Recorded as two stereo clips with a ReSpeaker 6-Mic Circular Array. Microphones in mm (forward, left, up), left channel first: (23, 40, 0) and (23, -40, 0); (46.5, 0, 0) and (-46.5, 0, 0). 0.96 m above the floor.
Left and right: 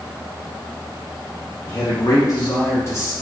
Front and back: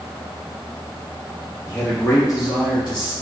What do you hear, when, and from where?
1.7 s a man speaking: 65° left, 1.3 m; by 3.1 s 35° left, 1.8 m